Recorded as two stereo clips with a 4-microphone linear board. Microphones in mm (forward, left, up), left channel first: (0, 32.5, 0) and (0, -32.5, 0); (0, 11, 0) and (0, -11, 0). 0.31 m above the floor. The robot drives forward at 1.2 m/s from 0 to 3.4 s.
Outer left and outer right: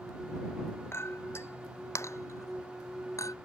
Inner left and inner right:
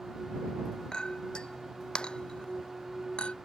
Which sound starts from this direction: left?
A clink, at 0.9 s.